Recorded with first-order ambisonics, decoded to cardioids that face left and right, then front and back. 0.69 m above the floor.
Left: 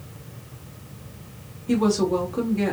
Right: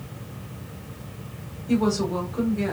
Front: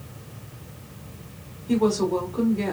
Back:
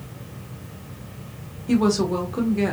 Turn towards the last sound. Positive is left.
turn(degrees=160)